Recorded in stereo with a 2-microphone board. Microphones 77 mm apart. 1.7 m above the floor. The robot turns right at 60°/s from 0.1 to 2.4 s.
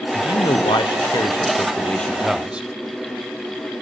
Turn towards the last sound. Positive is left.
turn(degrees=-170)